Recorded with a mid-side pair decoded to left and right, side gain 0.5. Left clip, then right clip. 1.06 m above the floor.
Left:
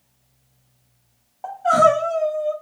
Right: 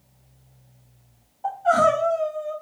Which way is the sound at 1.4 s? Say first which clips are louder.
Left 3 dB; 55° left.